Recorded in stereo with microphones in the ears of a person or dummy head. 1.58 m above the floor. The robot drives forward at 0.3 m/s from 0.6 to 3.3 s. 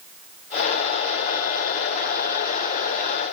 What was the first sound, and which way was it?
Only background noise.